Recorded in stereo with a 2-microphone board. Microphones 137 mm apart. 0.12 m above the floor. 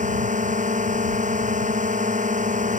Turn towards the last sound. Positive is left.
turn(degrees=-65)  # may be behind; listen again after turning